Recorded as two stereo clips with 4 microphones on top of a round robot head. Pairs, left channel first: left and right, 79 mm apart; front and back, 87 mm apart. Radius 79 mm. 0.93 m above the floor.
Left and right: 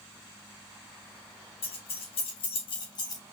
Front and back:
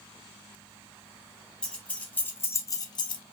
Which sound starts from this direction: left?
Keys jangling, at 1.6 s.